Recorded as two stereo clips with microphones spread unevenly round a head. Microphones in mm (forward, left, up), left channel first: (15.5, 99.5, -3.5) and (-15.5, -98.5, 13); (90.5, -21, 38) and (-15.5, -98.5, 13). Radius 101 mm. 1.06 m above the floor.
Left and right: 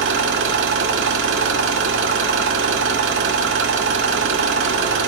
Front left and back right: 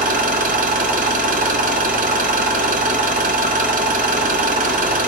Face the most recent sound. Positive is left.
turn(degrees=-130)